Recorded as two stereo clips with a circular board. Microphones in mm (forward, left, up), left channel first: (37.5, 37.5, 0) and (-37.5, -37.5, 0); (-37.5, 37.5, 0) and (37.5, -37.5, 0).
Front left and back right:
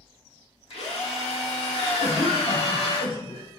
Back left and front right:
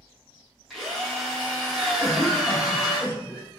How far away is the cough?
About 0.9 m.